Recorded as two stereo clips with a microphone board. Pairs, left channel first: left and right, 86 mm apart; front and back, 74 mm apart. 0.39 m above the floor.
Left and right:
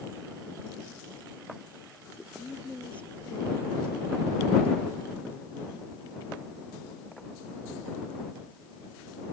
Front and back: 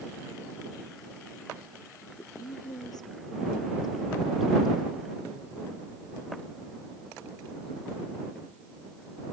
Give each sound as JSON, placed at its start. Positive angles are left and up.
{"t": 2.0, "sound": "a woman speaking", "azimuth_deg": 20}